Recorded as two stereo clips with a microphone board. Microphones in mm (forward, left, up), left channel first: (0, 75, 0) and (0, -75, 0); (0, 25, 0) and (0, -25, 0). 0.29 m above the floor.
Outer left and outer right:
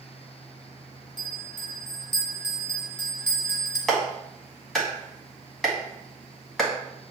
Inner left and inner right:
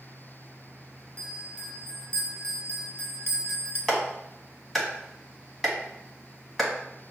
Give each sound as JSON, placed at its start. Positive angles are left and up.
{"t": 1.2, "sound": "a bell", "side_deg": 35, "distance_m": 0.9}
{"t": 3.9, "sound": "a clap", "side_deg": 5, "distance_m": 1.4}